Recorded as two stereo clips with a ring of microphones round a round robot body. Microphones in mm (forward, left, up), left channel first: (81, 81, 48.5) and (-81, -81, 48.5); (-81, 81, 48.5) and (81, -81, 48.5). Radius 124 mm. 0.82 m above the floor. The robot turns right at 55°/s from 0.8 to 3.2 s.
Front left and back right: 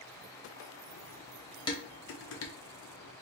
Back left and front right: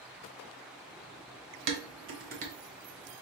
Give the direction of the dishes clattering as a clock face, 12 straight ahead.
1 o'clock.